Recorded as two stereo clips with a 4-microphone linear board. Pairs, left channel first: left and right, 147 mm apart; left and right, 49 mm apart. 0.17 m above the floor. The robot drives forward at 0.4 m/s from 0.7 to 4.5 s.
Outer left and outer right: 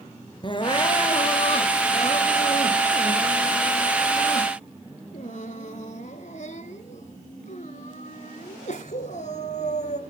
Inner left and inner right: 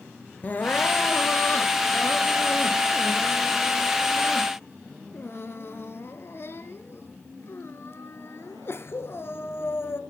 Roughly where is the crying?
Left.